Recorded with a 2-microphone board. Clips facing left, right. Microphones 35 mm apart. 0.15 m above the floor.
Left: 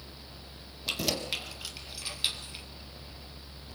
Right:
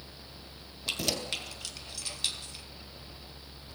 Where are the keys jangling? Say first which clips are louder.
Left 1 dB; centre (ahead or behind), 3 m; by 2.6 s 20° left (ahead or behind), 3 m.